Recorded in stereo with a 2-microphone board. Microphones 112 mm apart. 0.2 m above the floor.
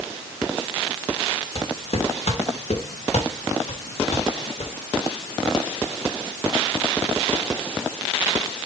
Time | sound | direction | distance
1.6 | footsteps | 60° left (ahead or behind) | 3 m